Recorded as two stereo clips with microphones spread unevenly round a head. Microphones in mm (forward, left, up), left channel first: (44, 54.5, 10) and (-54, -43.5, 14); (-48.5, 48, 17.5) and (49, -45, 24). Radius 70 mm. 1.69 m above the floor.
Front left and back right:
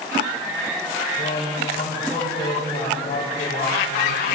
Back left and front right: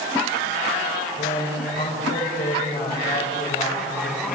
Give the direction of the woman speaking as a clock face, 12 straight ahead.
9 o'clock.